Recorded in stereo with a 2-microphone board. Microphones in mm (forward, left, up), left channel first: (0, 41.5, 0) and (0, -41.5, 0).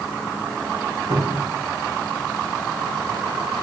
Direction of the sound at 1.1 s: 60° right (ahead or behind).